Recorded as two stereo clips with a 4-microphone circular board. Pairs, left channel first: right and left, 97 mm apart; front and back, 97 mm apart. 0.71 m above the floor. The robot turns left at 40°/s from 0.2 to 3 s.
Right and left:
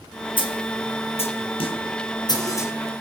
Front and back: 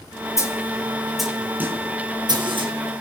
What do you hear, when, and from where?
0.4 s a snare drum: 60° right, 5.5 m; by 2.7 s 155° right, 5.5 m